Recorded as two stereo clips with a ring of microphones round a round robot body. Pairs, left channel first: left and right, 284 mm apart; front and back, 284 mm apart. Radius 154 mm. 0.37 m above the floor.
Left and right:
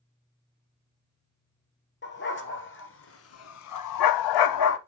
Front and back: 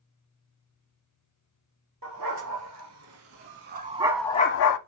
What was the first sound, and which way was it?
A dog barking, 140° left.